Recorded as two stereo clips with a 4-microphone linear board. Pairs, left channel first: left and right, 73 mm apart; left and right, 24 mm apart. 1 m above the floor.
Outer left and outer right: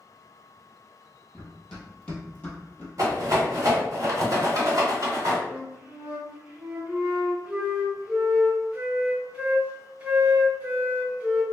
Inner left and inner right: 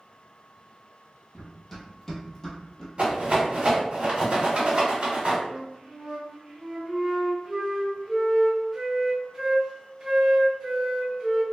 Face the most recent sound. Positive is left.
turn(degrees=-20)  # may be behind; listen again after turning